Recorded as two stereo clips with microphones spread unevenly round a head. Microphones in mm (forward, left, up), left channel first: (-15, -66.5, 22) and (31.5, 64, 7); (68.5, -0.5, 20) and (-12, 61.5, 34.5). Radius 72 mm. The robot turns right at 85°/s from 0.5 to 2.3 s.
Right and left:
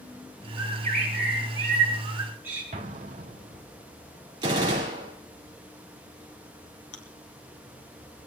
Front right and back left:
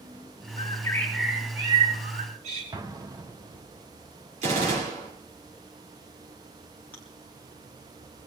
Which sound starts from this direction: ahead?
A bird, at 0.6 s.